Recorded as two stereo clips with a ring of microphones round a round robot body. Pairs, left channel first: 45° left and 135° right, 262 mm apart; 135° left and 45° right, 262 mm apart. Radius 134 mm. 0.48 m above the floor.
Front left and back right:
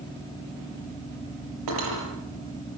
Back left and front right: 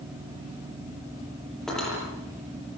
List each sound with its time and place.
1.7 s cutlery clinking: 135° right, 9 m